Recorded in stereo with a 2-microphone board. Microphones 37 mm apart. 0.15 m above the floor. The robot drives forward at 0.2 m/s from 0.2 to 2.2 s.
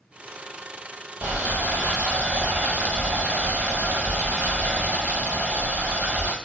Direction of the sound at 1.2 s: 75° right (ahead or behind).